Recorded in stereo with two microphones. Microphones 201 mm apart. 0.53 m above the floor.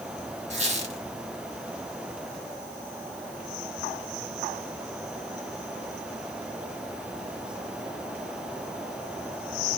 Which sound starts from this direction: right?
A squeak, at 0.5 s.